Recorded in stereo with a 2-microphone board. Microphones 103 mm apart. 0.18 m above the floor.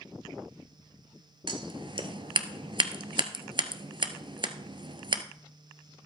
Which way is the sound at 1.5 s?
50° right (ahead or behind).